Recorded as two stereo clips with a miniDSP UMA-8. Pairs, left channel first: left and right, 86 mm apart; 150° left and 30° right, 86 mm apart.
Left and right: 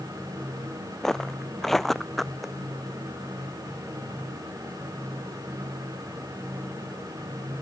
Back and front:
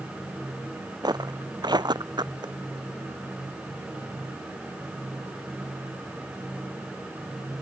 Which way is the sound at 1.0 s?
5° left.